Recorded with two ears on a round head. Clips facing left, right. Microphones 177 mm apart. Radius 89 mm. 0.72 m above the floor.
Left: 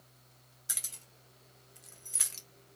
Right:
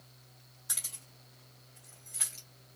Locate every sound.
0.7 s keys jangling: 25° left (ahead or behind), 1.5 m; by 2.8 s 70° left (ahead or behind), 1.0 m